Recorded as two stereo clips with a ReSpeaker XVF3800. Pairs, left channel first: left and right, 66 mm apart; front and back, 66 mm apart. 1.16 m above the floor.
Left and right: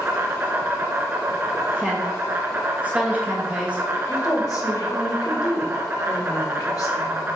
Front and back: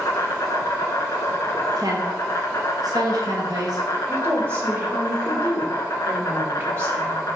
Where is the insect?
40° right, 1.5 m.